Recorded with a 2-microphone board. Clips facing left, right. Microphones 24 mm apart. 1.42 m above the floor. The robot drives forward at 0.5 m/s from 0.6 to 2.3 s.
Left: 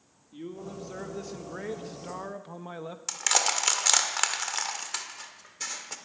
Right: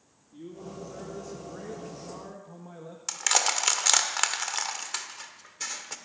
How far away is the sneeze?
No sneeze in this recording.